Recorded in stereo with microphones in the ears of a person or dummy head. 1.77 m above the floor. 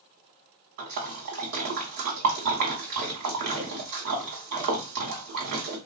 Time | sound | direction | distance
0.8 | a splash | 65° right (ahead or behind) | 0.9 m